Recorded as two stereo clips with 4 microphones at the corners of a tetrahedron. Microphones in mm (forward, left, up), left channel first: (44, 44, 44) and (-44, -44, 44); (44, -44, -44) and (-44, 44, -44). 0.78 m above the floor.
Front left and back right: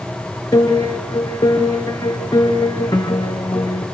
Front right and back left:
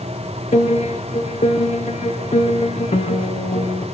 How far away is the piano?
About 3 m.